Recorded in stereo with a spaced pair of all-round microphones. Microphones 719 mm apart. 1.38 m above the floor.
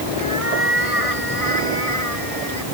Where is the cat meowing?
45° left (ahead or behind); by 2.6 s 55° left (ahead or behind).